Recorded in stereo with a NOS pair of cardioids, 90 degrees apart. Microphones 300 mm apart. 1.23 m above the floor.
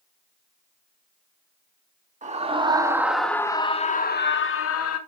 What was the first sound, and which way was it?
A scream, 25° right.